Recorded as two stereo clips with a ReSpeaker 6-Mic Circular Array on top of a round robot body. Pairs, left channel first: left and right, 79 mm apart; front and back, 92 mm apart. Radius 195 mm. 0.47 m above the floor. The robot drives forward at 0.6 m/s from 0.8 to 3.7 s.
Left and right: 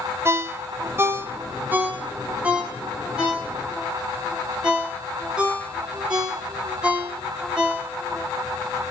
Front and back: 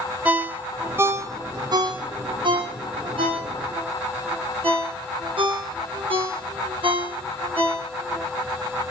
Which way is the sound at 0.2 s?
115° right.